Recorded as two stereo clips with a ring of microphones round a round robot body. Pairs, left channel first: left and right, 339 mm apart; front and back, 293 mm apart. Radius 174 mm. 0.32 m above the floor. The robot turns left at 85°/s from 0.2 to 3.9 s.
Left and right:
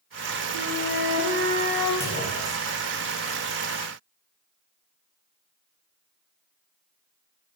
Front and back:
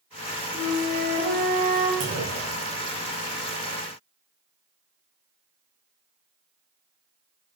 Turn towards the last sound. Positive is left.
turn(degrees=10)